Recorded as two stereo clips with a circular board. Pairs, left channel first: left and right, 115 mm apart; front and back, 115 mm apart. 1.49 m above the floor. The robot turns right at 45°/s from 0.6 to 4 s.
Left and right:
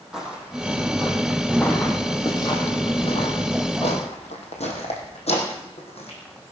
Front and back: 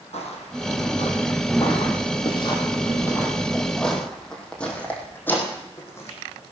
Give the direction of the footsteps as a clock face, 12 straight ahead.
12 o'clock.